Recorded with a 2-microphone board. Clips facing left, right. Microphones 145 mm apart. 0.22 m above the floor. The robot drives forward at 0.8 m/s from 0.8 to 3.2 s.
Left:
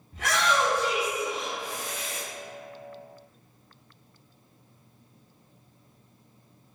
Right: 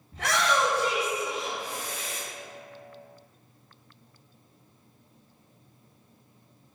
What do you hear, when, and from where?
0.1 s a shout: 35° right (ahead or behind), 1.8 m